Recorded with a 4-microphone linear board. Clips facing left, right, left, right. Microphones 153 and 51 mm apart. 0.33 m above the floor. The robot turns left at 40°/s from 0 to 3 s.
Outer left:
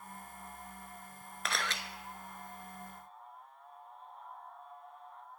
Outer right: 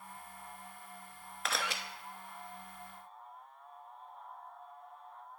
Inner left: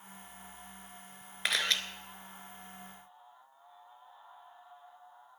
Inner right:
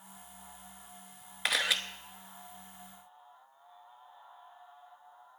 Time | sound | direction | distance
1.4 | a camera shutter | centre (ahead or behind) | 0.9 m